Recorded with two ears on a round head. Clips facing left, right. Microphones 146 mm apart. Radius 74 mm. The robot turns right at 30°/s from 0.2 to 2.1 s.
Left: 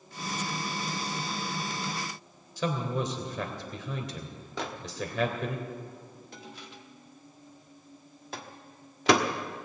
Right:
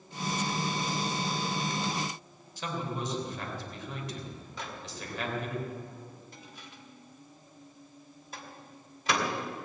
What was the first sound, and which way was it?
A man speaking, 70° left (ahead or behind).